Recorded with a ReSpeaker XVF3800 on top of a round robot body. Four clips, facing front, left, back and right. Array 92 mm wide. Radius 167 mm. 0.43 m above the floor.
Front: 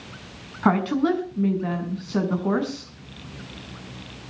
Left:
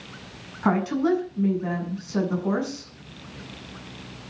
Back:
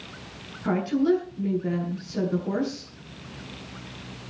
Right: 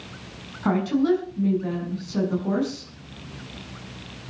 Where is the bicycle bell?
I don't hear a bicycle bell.